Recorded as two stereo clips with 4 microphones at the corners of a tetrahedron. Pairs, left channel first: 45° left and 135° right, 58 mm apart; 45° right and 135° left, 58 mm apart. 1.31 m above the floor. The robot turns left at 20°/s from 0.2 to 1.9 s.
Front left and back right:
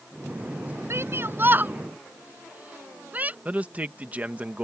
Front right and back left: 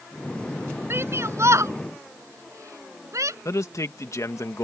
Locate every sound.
0.9 s a shout: straight behind; by 3.4 s 160° left
3.5 s a man speaking: 70° right